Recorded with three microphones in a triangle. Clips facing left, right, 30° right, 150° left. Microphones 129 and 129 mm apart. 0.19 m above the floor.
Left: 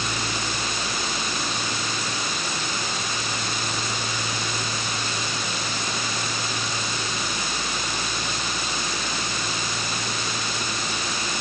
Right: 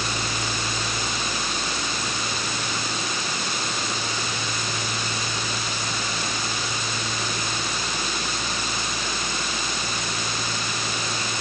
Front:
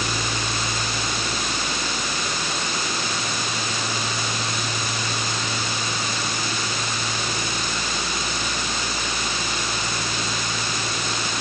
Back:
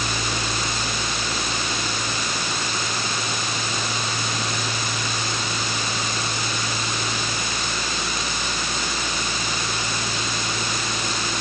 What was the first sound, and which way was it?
Only background noise.